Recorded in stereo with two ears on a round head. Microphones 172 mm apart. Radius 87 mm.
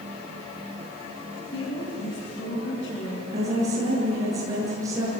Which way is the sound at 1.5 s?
75° left (ahead or behind).